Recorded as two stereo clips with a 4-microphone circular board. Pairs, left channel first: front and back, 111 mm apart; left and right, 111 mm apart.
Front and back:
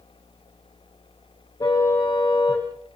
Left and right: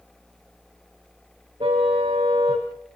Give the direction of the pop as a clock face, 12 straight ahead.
I don't hear a pop.